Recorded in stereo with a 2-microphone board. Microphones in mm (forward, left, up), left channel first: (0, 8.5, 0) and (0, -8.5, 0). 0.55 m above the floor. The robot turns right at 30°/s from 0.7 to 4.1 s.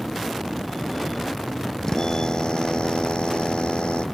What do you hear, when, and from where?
1.8 s a drill: 35° left; by 4.0 s 100° left